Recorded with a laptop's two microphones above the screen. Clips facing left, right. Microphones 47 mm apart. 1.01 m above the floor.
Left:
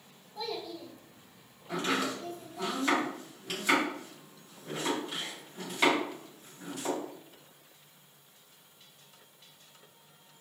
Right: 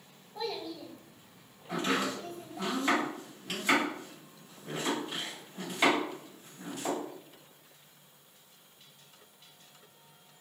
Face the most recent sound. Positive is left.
turn(degrees=0)  # may be behind; listen again after turning